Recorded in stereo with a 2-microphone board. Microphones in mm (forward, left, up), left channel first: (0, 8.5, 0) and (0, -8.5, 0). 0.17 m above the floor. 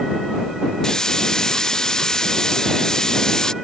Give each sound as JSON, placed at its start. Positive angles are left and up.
{"t": 0.8, "sound": "a hiss", "side_deg": 40}